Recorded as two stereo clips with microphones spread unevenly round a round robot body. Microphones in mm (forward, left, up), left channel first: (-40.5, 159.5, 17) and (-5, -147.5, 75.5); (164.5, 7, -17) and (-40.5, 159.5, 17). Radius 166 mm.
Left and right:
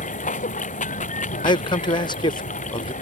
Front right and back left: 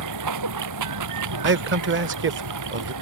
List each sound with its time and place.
0.0 s running water: 165° left
1.4 s a man speaking: 145° left